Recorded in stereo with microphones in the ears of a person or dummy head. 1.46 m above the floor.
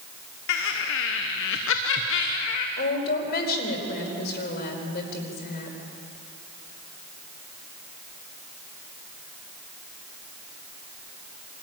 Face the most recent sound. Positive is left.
turn(degrees=45)  # may be behind; listen again after turning